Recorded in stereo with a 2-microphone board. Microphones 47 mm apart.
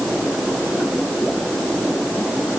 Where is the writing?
I don't hear writing.